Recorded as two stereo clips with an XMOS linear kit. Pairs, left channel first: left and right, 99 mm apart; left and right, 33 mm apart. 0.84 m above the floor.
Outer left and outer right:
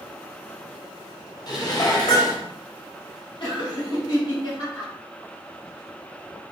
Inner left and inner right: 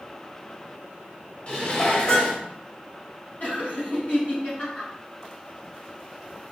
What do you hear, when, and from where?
1.5 s dishes clattering: 40° left (ahead or behind), 1.1 m
3.4 s laughter: 65° left (ahead or behind), 2 m